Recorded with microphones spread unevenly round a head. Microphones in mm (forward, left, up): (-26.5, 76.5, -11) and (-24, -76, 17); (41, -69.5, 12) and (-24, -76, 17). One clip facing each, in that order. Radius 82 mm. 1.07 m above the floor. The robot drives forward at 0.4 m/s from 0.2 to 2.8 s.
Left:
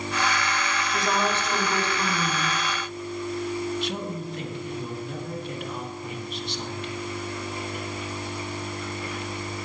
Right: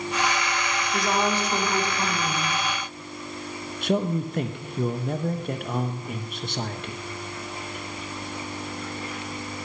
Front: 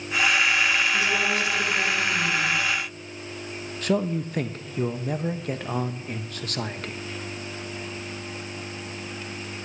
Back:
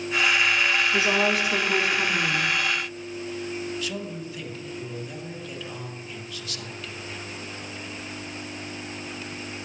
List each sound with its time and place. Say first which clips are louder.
0.9 s a woman speaking: right 2 dB, back 2 dB; 165° right, 2.5 m; by 2.6 s 170° right, 3 m
3.8 s a man speaking: right 6 dB, front 8 dB; 35° right, 0.9 m